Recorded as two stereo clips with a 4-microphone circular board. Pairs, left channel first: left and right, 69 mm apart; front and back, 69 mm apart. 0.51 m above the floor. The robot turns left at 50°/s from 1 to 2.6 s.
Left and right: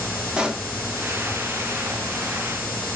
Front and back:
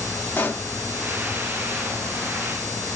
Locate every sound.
0.4 s a pop: 30° right, 0.7 m